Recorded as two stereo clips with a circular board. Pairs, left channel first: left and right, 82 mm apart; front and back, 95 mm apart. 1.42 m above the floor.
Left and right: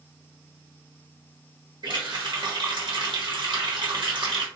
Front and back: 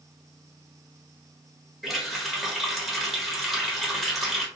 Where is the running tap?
85° right, 1.3 m.